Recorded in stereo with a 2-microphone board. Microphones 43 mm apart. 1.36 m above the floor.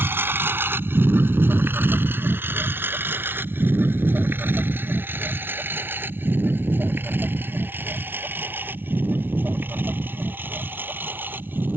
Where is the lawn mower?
60° right (ahead or behind); by 11.8 s 50° right (ahead or behind).